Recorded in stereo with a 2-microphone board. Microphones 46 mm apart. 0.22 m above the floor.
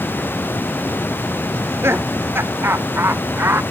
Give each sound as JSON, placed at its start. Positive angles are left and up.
{"t": 1.5, "sound": "laughter", "side_deg": -65}